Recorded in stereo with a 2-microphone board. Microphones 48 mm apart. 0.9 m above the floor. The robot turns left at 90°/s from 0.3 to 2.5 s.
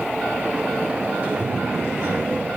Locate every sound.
1.2 s a man speaking: 35° right, 4.5 m; by 2.5 s 145° right, 4.5 m